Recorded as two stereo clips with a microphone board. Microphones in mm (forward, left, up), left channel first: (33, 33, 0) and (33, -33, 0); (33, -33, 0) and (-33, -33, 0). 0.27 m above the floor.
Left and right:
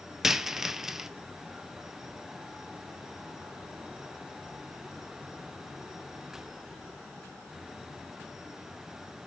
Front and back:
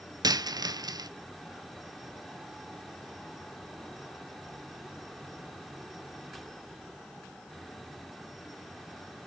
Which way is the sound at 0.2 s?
170° right.